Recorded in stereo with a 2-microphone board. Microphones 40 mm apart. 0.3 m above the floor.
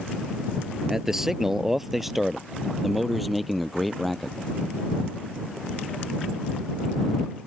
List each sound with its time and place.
0.9 s a man speaking: 10° right (ahead or behind); by 4.4 s centre (ahead or behind)